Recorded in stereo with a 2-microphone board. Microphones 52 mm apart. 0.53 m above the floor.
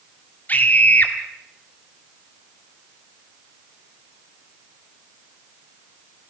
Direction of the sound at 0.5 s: 35° left (ahead or behind).